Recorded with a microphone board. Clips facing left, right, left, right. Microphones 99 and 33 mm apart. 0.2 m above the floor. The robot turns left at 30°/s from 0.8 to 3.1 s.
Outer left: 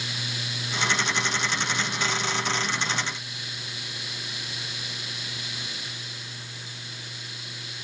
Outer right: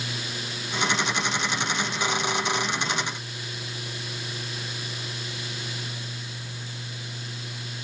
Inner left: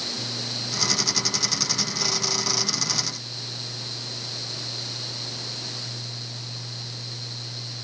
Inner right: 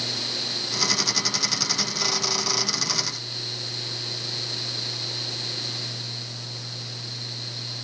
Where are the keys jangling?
I don't hear keys jangling.